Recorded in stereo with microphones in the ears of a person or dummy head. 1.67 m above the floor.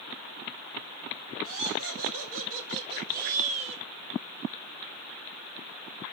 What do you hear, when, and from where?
1.4 s laughter: 75° right (ahead or behind), 2.5 m; by 3.8 s 30° right (ahead or behind), 2.5 m